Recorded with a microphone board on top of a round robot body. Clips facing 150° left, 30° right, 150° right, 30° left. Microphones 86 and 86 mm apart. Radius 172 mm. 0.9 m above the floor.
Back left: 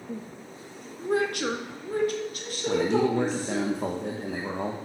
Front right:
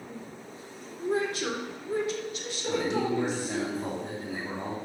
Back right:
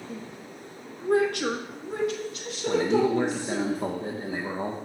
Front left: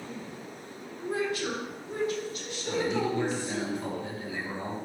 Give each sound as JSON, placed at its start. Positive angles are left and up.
{"t": 0.1, "sound": "a woman speaking", "azimuth_deg": 140, "distance_m": 1.4}
{"t": 2.7, "sound": "a man speaking", "azimuth_deg": 165, "distance_m": 1.6}